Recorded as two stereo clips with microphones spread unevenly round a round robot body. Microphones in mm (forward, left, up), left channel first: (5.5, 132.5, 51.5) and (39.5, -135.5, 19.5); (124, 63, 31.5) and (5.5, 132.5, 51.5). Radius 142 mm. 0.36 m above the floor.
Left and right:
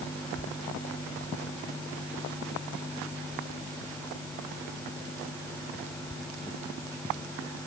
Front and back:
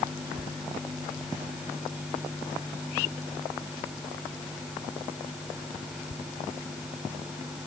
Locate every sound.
Only background noise.